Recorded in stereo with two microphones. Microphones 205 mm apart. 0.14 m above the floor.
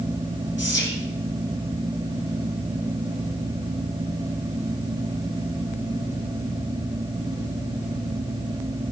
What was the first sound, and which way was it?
Whispering, 65° left (ahead or behind).